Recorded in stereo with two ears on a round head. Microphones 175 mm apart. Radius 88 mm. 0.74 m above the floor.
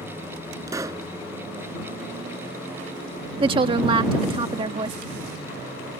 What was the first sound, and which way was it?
A pop, 15° right (ahead or behind).